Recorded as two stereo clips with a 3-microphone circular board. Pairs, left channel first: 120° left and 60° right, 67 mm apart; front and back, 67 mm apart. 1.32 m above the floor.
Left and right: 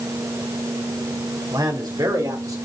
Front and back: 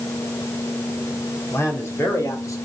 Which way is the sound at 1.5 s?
50° right.